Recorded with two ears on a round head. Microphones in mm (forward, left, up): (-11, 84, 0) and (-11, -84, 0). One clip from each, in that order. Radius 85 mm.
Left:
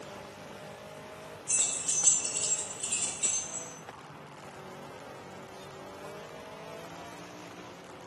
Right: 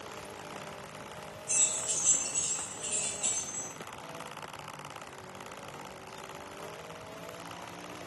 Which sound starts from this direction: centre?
Keys jangling, at 1.5 s.